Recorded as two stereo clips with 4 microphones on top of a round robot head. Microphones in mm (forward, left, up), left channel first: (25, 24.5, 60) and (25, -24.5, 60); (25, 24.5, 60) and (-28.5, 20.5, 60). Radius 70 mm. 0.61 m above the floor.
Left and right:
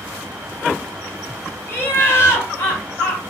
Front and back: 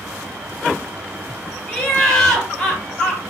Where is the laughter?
75° left, 1.4 m.